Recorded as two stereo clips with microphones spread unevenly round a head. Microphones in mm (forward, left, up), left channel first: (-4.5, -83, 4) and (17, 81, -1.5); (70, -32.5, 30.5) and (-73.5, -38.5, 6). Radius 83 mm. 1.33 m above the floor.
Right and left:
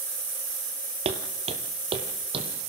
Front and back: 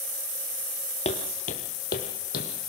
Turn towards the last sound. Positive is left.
turn(degrees=20)